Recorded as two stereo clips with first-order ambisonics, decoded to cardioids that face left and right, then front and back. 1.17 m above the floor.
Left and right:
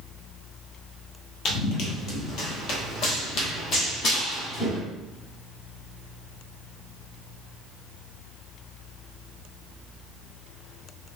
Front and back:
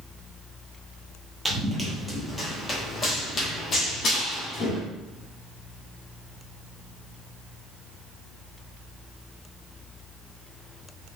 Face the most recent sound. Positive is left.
turn(degrees=45)